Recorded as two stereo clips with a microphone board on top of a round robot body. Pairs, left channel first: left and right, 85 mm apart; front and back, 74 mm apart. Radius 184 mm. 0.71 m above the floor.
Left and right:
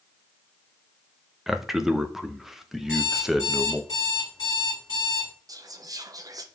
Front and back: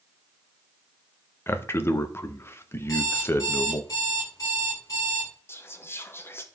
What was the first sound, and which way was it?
A man speaking, 5° right.